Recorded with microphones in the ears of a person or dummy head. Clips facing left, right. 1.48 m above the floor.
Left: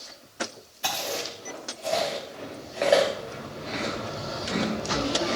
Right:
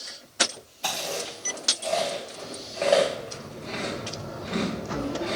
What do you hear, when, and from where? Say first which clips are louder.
0.8 s chewing: even; 15° left (ahead or behind), 2.5 m